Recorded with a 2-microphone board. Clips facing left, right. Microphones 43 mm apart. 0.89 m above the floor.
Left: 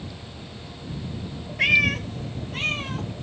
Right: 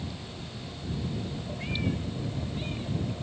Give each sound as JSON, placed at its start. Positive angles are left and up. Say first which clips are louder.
{"t": 1.6, "sound": "a cat meowing", "louder": "left 14 dB", "side_deg": 75}